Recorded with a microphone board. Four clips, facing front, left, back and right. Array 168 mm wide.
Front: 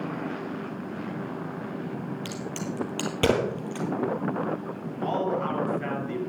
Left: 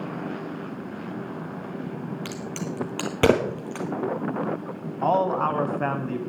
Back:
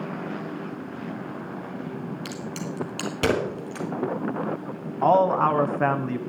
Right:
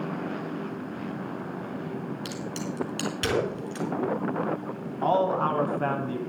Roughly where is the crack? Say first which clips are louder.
Left 1 dB, even; left.